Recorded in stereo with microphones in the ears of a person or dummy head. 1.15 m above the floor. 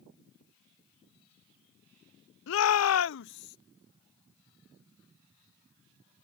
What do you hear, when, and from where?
2.5 s a shout: 70° left (ahead or behind); by 3.6 s 50° left (ahead or behind)